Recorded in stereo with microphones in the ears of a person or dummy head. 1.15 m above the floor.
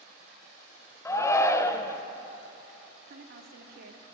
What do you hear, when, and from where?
1.1 s a shout: 15° left (ahead or behind), 0.5 m
3.1 s a woman speaking: 55° right (ahead or behind), 0.8 m